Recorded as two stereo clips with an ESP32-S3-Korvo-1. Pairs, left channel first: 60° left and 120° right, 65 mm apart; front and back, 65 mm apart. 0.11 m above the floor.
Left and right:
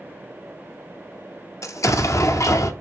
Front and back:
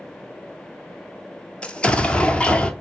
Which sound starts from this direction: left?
An explosion, at 1.6 s.